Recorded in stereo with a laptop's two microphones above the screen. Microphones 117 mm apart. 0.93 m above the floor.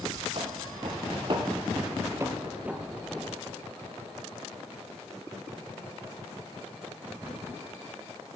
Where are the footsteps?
55° right (ahead or behind), 1.7 m; by 3.4 s 10° left (ahead or behind), 1.1 m.